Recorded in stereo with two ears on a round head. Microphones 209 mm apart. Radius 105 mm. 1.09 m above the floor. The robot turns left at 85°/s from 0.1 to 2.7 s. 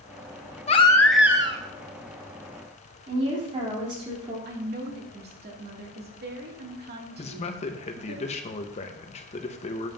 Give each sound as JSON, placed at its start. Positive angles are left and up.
{"t": 0.7, "sound": "a baby crying", "azimuth_deg": 40, "distance_m": 0.6}
{"t": 3.1, "sound": "a woman speaking", "side_deg": -25, "distance_m": 3.0}
{"t": 4.5, "sound": "a woman speaking", "side_deg": -45, "distance_m": 2.0}
{"t": 7.2, "sound": "a man speaking", "side_deg": 30, "distance_m": 0.9}